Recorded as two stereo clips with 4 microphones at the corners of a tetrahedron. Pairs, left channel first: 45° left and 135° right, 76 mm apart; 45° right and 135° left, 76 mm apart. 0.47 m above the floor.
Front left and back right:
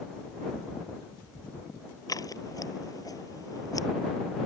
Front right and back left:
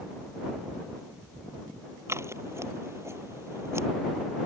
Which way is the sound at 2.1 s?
80° left.